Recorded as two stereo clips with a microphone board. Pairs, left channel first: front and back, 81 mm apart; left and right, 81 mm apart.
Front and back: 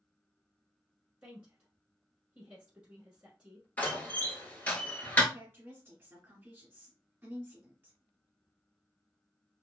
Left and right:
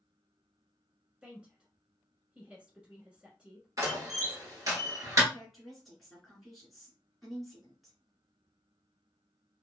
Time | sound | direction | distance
1.2 | a woman speaking | 135° right | 1.1 m
3.8 | a door slam | 60° right | 1.1 m
5.3 | a woman speaking | straight behind | 1.5 m